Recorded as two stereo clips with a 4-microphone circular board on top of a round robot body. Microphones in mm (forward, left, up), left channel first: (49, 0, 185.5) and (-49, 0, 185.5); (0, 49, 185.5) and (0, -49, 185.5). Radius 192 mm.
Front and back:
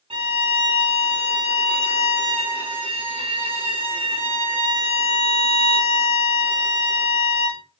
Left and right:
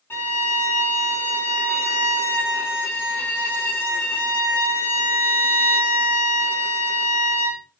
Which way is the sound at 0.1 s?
155° left.